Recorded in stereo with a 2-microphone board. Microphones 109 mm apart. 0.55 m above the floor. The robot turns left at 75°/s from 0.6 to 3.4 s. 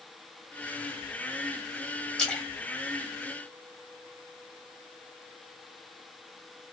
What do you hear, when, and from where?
2.2 s a splash: 10° left (ahead or behind), 1.3 m; by 4.1 s 20° left (ahead or behind), 1.3 m